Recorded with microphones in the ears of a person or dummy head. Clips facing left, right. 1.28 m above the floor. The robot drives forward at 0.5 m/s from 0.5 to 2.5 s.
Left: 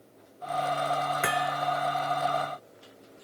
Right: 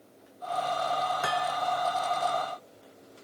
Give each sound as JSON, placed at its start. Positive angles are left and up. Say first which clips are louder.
{"t": 1.2, "sound": "hammering", "louder": "left 1 dB", "side_deg": 30}